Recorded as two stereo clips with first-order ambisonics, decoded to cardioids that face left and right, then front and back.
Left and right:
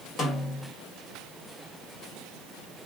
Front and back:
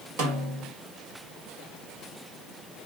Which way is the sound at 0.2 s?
155° left.